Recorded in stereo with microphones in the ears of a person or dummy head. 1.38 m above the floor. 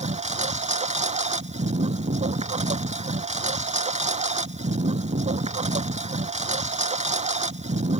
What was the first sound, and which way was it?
A lawn mower, 30° right (ahead or behind).